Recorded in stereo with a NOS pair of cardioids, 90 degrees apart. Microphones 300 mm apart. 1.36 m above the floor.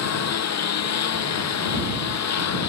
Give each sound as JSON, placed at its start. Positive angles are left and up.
{"t": 0.0, "sound": "a lawn mower", "azimuth_deg": 60}